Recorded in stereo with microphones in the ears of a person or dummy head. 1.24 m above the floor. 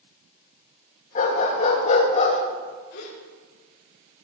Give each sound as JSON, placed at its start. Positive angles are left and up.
{"t": 1.1, "sound": "a dog barking", "side_deg": 50, "distance_m": 3.5}
{"t": 2.9, "sound": "a gasp", "side_deg": 75, "distance_m": 3.5}